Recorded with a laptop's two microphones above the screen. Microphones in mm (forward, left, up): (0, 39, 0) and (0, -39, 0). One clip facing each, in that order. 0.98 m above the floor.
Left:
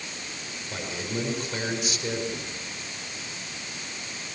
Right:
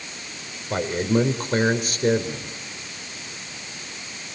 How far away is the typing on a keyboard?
I don't hear typing on a keyboard.